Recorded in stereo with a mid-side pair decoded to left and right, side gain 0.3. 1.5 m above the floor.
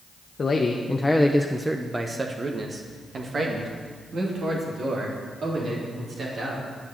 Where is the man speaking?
50° left, 1.0 m; by 6.7 s 70° right, 4.5 m.